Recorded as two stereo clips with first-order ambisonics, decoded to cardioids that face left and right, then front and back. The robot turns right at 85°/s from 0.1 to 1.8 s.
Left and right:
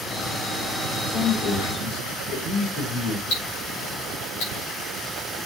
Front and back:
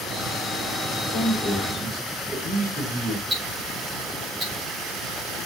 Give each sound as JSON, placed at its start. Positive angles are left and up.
{"t": 1.1, "sound": "a man speaking", "azimuth_deg": 40, "distance_m": 3.5}
{"t": 3.3, "sound": "ticking", "azimuth_deg": 110, "distance_m": 6.0}